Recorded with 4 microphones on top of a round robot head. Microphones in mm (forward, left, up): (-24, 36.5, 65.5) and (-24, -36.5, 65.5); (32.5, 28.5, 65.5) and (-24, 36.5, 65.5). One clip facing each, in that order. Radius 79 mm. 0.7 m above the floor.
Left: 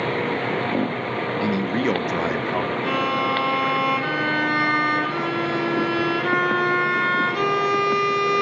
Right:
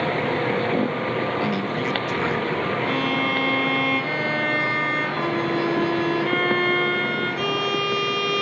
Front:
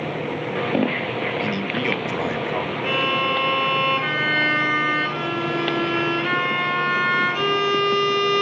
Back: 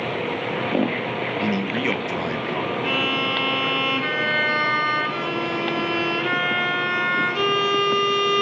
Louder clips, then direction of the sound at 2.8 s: Left 1 dB, front 4 dB; 85° left.